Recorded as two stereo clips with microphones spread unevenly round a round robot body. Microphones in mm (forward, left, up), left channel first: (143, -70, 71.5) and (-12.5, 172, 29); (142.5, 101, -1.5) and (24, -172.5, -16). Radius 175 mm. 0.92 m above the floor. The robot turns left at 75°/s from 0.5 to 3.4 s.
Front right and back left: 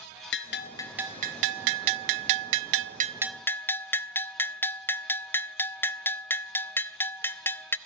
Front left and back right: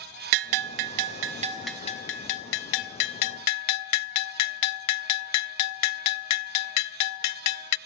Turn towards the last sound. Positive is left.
turn(degrees=25)